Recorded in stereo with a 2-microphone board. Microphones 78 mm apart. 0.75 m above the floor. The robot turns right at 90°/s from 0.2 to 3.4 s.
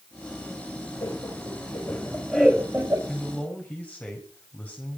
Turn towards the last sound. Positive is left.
turn(degrees=20)